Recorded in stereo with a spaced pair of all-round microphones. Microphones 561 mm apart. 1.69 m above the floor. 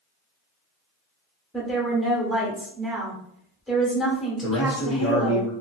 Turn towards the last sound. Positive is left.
turn(degrees=30)  # may be behind; listen again after turning